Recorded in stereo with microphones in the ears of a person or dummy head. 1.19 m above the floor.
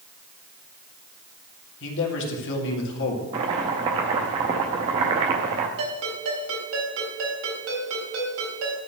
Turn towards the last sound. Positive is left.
turn(degrees=-85)